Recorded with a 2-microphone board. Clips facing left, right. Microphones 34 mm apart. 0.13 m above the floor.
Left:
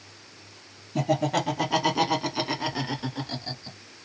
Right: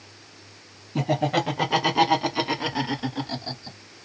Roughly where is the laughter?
Centre.